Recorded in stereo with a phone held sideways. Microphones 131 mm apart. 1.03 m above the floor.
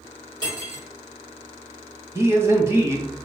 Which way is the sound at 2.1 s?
20° right (ahead or behind).